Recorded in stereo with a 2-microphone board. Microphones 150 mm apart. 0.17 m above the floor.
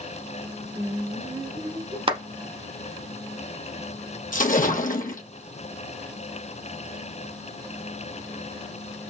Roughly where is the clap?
Right.